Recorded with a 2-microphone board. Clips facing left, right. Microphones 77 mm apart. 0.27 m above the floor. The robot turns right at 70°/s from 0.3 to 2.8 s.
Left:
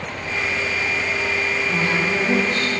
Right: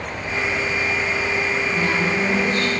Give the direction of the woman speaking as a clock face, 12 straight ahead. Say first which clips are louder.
Left 1 dB; 11 o'clock.